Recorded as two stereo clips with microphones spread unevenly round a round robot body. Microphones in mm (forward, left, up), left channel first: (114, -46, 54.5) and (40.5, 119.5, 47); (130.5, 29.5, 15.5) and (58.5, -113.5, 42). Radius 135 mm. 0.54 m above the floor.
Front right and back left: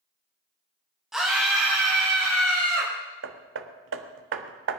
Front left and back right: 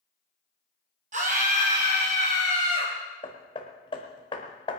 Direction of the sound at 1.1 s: 160° right.